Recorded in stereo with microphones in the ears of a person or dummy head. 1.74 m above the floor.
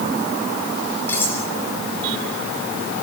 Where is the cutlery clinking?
15° left (ahead or behind), 4 m.